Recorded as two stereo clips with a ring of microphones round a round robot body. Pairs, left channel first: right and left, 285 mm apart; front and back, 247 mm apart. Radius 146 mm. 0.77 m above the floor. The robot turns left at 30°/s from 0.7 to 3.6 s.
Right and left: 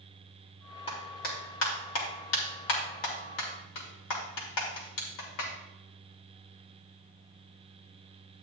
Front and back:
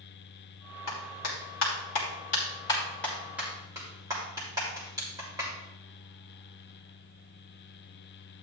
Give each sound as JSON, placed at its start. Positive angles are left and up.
{"t": 0.9, "sound": "a clap", "azimuth_deg": -20, "distance_m": 2.5}